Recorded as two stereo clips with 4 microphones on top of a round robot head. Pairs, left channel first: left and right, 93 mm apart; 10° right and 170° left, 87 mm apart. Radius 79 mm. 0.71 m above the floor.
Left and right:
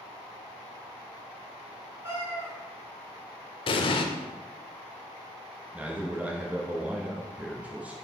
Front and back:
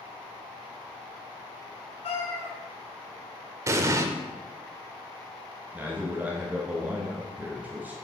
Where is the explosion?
115° left, 0.5 m.